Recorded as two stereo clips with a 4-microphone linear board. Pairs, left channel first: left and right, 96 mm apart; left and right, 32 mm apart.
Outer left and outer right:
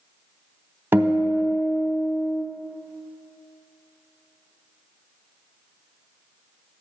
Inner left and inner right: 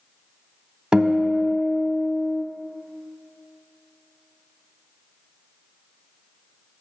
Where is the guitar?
20° right (ahead or behind), 0.7 m.